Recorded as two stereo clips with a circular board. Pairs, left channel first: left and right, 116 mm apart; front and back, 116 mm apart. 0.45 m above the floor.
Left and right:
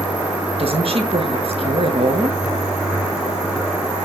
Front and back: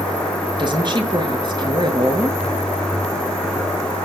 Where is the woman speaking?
130° right, 7 m.